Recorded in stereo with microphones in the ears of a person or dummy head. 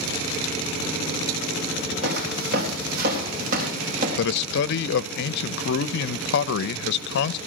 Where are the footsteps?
65° right (ahead or behind), 3.5 m; by 4.1 s 45° right (ahead or behind), 4 m.